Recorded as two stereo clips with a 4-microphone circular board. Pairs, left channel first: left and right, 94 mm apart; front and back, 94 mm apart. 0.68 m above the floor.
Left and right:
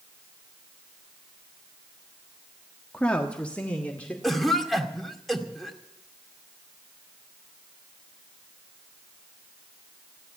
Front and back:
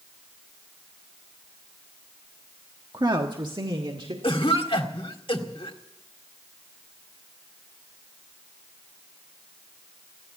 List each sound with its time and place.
2.9 s a woman speaking: 165° left, 1.2 m
4.2 s a cough: straight ahead, 2 m